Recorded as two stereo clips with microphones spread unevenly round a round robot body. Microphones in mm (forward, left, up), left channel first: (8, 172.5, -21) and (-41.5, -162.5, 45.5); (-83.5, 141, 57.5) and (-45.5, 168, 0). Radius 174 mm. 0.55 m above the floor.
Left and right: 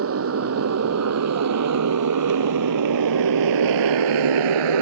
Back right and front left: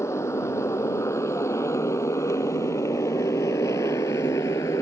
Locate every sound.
0.0 s a motorcycle: 150° right; by 4.8 s 115° right